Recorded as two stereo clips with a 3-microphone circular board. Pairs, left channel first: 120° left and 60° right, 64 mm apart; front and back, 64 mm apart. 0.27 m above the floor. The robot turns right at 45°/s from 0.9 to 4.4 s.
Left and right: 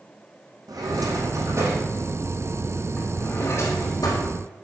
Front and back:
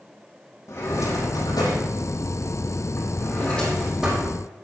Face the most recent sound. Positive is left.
turn(degrees=115)